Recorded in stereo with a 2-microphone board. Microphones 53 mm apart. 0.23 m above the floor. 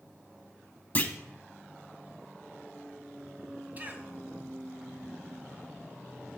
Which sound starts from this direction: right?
A cough, at 3.8 s.